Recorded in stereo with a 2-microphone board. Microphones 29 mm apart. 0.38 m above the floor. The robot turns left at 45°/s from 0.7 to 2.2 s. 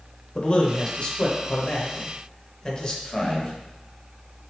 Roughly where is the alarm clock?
No alarm clock in this recording.